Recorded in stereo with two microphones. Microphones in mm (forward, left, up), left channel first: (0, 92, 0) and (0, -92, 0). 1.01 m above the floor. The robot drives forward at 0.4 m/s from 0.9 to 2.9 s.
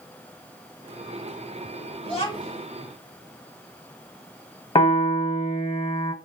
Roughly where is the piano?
Left.